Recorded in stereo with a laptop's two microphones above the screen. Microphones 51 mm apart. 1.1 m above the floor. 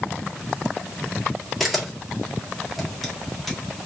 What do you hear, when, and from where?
1.6 s a camera shutter: centre (ahead or behind), 1.4 m